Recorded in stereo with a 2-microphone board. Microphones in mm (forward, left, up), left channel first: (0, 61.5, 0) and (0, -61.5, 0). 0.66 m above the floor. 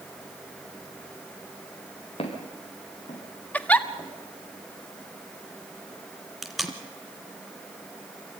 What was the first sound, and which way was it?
Footsteps, 50° left (ahead or behind).